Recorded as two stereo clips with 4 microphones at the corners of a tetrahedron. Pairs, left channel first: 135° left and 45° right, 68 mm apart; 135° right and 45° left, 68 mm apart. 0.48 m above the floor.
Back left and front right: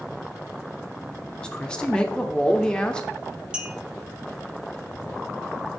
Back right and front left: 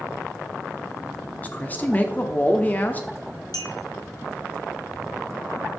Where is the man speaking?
165° right, 0.7 m.